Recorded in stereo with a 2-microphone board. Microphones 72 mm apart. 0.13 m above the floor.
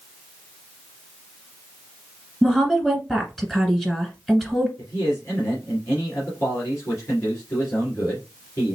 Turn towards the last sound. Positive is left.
turn(degrees=35)  # may be behind; listen again after turning